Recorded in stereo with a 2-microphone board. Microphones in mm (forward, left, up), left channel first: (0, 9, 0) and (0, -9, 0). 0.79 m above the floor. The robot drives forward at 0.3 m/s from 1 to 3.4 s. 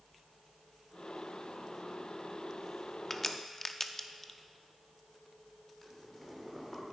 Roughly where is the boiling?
Centre.